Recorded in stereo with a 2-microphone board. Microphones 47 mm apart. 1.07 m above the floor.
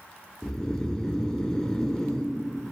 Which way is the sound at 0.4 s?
15° left (ahead or behind).